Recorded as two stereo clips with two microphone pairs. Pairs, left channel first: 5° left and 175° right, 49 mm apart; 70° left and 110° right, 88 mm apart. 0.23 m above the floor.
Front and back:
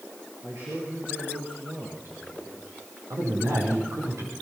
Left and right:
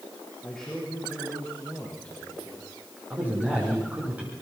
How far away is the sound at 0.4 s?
About 5.5 m.